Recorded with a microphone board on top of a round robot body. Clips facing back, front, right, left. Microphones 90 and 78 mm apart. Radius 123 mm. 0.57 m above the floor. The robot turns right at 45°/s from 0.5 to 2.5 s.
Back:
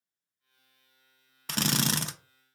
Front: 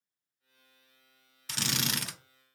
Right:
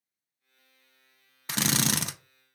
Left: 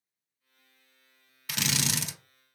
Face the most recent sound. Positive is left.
turn(degrees=-100)